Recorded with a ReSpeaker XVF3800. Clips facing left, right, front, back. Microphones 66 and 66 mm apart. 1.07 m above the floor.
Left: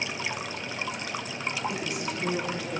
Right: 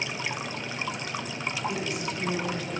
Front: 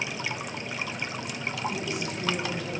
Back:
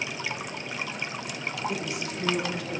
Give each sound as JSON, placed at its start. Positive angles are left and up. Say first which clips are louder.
{"t": 1.7, "sound": "a woman speaking", "louder": "right 1 dB, even", "azimuth_deg": 175, "distance_m": 1.5}